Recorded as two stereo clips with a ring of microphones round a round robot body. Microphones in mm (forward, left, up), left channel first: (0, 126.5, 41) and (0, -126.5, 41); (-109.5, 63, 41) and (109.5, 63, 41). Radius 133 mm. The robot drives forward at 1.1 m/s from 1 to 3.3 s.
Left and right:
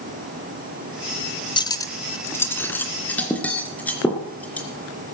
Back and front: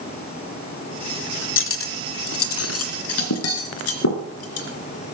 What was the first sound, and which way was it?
Cutlery clinking, 160° left.